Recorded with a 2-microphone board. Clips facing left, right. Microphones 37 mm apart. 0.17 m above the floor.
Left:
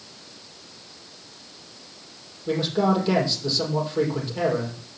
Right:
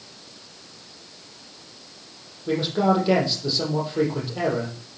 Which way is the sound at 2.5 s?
5° right (ahead or behind).